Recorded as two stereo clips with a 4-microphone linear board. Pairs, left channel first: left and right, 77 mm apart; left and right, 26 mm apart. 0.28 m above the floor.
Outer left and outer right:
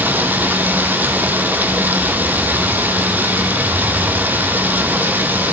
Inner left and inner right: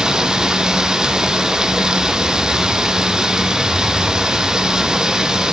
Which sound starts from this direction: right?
Running water, at 0.0 s.